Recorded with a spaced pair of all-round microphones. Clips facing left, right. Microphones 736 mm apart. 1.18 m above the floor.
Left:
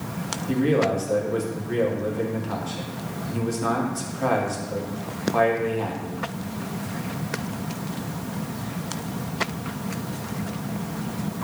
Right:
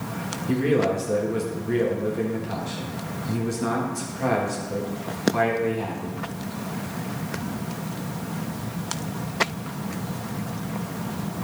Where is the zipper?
No zipper in this recording.